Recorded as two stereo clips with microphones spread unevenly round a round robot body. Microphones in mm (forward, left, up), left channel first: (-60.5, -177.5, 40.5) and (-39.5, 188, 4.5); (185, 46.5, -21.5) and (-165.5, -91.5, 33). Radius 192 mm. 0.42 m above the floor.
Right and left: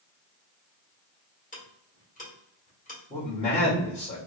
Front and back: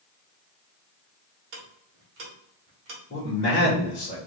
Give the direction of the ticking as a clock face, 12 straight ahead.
5 o'clock.